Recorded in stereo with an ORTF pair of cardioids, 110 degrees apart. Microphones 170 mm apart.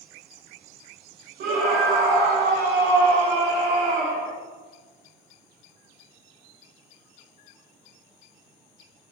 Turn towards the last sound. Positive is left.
turn(degrees=-65)